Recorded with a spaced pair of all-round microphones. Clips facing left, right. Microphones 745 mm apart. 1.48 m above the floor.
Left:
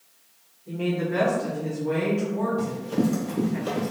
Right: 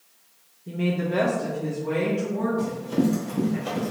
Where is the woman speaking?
50° right (ahead or behind), 0.7 m; by 3.6 s 75° right (ahead or behind), 1.9 m.